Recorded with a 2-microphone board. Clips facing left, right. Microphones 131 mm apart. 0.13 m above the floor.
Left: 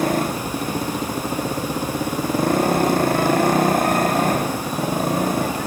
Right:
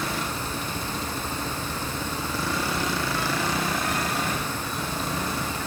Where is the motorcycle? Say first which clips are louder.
Left 9 dB; 50° left (ahead or behind).